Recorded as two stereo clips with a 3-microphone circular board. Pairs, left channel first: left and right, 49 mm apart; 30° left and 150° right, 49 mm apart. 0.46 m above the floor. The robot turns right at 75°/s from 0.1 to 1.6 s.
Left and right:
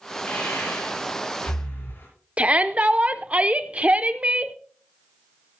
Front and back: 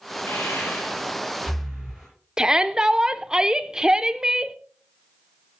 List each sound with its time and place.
0.3 s breathing: 30° left, 7.5 m; by 2.1 s 130° left, 7.5 m
2.4 s a shout: 95° right, 0.8 m